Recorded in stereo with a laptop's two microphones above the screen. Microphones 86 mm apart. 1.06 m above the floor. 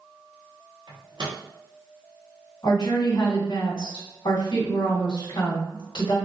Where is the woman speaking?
60° left (ahead or behind), 1.2 m.